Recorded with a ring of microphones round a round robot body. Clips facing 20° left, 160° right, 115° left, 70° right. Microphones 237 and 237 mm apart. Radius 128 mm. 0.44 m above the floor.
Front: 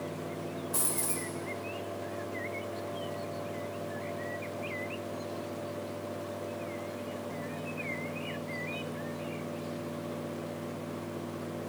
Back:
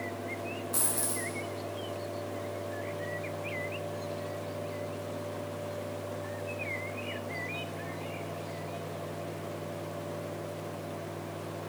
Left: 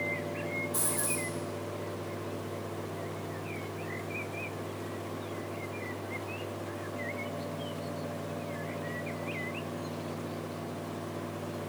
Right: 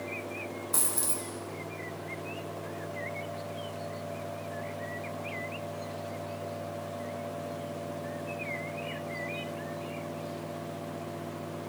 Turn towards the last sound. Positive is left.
turn(degrees=-80)